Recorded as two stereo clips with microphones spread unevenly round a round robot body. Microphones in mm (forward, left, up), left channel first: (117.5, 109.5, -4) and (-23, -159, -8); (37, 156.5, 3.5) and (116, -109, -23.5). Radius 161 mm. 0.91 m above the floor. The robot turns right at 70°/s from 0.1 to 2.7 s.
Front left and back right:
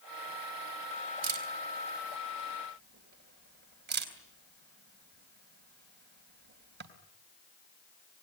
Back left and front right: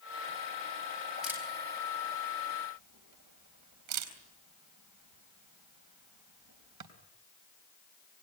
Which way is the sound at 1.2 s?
165° right.